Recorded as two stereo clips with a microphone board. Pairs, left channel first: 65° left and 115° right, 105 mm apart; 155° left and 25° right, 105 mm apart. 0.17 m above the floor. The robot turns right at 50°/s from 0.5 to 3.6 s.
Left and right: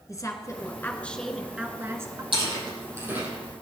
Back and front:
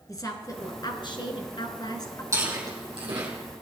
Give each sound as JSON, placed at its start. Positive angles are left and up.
{"t": 0.1, "sound": "a woman speaking", "azimuth_deg": 115, "distance_m": 2.5}
{"t": 2.3, "sound": "chewing", "azimuth_deg": -85, "distance_m": 6.0}